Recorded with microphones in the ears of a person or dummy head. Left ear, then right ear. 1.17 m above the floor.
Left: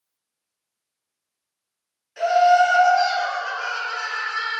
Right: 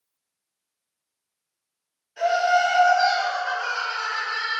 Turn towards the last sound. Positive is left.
turn(degrees=55)  # may be behind; listen again after turning